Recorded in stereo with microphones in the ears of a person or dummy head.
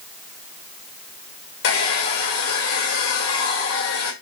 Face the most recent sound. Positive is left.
turn(degrees=80)